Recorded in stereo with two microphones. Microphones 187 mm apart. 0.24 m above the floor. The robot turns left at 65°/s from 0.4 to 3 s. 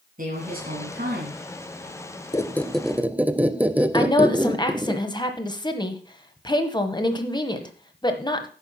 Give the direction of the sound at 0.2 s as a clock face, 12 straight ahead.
2 o'clock.